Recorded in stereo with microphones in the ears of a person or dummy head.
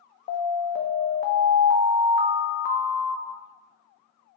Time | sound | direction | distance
0.3 | an alarm | 45° left (ahead or behind) | 0.5 m